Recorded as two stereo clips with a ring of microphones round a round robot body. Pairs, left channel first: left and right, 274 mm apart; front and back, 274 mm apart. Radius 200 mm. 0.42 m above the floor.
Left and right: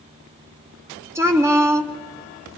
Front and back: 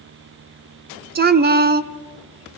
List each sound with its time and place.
1.1 s a woman speaking: 165° right, 0.8 m